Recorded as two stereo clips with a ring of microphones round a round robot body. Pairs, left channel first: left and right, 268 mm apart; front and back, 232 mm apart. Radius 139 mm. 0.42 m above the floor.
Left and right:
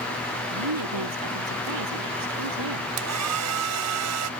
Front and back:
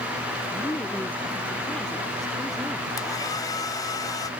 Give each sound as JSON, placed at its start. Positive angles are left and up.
{"t": 0.5, "sound": "a woman speaking", "azimuth_deg": -80}
{"t": 3.0, "sound": "a hair dryer", "azimuth_deg": -75}